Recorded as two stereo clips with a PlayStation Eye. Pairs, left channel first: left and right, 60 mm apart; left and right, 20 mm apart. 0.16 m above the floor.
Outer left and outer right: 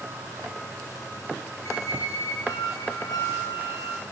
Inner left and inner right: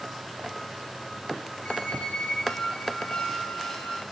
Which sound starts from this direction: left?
A squeak, at 1.6 s.